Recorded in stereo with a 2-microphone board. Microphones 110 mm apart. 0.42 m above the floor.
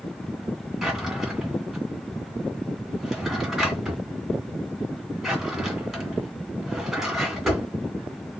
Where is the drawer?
5° right (ahead or behind), 2 m.